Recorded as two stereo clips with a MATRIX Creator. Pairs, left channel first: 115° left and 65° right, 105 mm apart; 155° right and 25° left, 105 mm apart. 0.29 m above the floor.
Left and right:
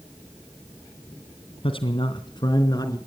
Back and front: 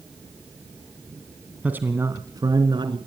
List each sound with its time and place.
1.6 s a man speaking: 95° left, 2.5 m; by 3.0 s 60° left, 3.5 m